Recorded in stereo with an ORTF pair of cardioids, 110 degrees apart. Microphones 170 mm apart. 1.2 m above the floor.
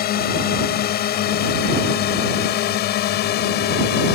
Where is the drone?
65° left; by 4.2 s 75° left.